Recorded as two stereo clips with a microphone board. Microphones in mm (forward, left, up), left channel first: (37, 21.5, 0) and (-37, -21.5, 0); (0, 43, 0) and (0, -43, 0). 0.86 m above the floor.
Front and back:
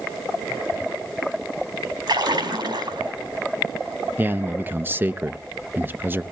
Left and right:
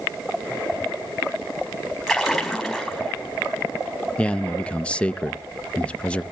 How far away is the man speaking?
About 0.5 m.